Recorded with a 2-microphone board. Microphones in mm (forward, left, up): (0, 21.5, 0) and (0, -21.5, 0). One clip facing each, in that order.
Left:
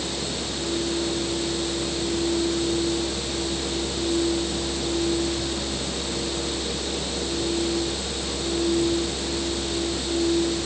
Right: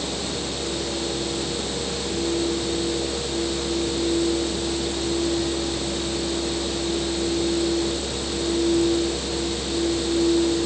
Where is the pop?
I don't hear a pop.